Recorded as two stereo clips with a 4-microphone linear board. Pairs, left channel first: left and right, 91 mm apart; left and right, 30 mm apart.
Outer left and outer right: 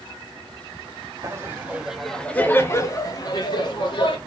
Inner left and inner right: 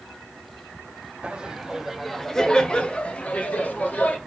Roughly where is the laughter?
Right.